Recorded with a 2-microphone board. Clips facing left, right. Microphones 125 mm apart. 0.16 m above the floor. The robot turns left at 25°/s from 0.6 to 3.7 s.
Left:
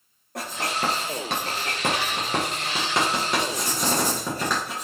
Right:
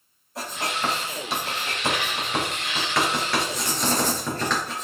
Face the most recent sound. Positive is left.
turn(degrees=10)  # may be behind; listen again after turning